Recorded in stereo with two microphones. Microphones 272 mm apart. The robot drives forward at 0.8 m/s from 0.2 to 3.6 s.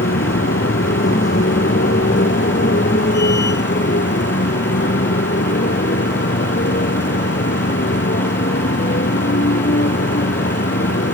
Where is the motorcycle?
50° left (ahead or behind); by 11.2 s 45° left (ahead or behind).